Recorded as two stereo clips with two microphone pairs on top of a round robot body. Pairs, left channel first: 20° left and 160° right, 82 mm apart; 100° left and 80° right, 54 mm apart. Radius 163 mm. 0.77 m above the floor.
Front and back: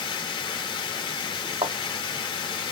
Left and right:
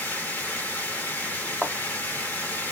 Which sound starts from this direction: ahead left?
Running water, at 0.0 s.